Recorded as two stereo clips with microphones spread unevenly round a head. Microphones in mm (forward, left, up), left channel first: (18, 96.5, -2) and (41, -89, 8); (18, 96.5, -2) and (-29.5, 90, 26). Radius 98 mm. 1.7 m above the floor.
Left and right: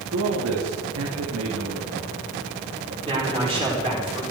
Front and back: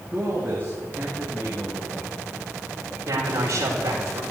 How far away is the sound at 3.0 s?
About 6 m.